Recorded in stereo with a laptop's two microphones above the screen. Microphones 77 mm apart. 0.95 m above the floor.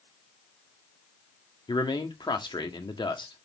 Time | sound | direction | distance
1.7 | a man speaking | 70° left (ahead or behind) | 1.6 m